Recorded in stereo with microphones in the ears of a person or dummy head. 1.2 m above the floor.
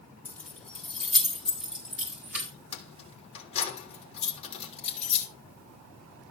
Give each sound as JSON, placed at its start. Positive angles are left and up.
{"t": 0.2, "sound": "keys jangling", "side_deg": 10, "distance_m": 4.5}
{"t": 2.7, "sound": "keys jangling", "side_deg": 35, "distance_m": 3.0}